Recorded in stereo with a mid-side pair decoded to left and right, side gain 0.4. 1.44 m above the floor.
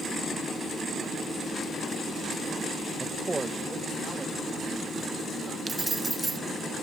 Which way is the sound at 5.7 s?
25° right.